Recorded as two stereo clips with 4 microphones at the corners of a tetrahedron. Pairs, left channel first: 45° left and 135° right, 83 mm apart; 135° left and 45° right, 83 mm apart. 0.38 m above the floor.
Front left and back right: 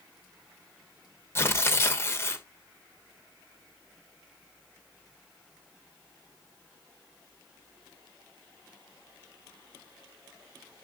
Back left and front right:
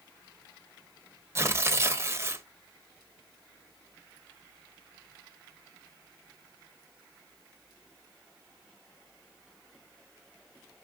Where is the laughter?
No laughter in this recording.